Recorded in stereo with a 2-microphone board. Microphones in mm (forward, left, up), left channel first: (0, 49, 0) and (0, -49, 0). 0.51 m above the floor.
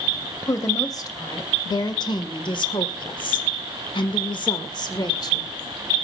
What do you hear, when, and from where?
0.5 s a woman speaking: 35° left (ahead or behind), 2.5 m; by 5.5 s 40° left (ahead or behind), 1.6 m